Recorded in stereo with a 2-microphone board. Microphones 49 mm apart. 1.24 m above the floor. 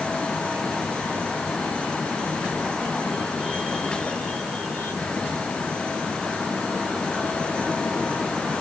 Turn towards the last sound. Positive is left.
No sound to turn to.